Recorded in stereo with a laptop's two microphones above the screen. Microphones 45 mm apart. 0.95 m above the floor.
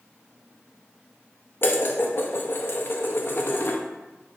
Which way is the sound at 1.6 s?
55° left (ahead or behind).